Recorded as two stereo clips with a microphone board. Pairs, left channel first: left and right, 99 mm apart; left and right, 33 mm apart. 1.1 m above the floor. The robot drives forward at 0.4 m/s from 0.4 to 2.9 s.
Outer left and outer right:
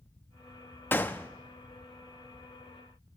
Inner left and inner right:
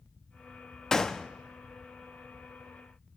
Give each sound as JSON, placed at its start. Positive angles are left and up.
{"t": 0.9, "sound": "a gunshot", "side_deg": 20, "distance_m": 0.6}